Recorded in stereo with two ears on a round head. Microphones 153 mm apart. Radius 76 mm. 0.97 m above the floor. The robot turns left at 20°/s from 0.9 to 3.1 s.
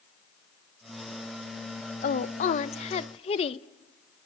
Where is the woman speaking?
45° left (ahead or behind), 0.7 m; by 3.7 s 35° left (ahead or behind), 0.7 m.